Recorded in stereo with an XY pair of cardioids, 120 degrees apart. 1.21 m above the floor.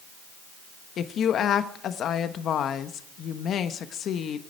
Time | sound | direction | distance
1.0 | a woman speaking | 55° left | 1.3 m